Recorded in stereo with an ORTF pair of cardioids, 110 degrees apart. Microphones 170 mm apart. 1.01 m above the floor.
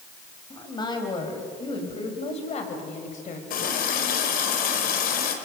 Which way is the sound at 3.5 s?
60° left.